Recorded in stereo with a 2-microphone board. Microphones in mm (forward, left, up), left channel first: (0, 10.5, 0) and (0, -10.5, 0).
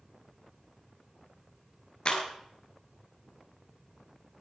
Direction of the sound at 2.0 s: 45° left (ahead or behind).